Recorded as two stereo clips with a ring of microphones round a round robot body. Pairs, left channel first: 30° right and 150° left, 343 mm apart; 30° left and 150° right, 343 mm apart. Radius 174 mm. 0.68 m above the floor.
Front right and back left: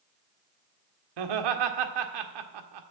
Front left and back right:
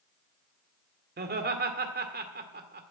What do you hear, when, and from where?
1.2 s laughter: 145° left, 1.7 m